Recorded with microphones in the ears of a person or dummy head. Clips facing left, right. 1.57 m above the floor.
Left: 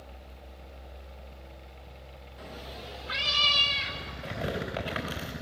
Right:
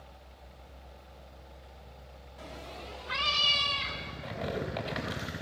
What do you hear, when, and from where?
2.4 s a cat meowing: 10° left (ahead or behind), 0.8 m; by 4.1 s 20° left (ahead or behind), 3 m
4.2 s tearing paper: 30° left (ahead or behind), 3.5 m